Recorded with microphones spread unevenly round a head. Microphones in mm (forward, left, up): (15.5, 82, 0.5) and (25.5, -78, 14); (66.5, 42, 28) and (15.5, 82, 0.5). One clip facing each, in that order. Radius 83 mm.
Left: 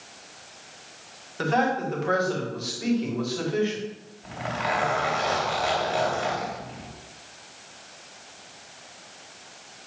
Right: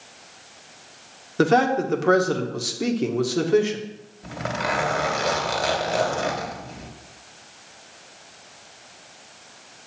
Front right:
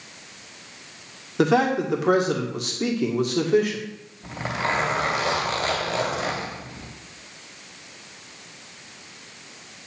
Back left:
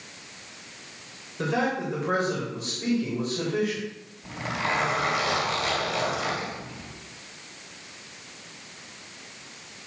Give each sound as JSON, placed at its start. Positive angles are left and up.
{"t": 1.4, "sound": "a man speaking", "azimuth_deg": -60, "distance_m": 1.8}
{"t": 4.2, "sound": "a zipper", "azimuth_deg": -65, "distance_m": 2.5}